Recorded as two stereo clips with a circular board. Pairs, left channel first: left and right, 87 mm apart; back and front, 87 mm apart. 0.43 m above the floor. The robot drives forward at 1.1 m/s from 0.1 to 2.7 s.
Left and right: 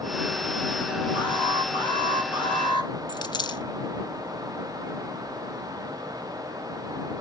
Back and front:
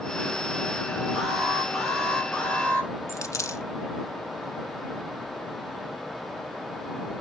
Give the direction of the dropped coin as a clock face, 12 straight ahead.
8 o'clock.